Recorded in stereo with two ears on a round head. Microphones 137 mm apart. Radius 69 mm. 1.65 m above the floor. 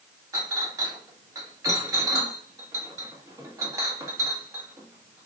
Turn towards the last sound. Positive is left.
turn(degrees=-20)  # may be behind; listen again after turning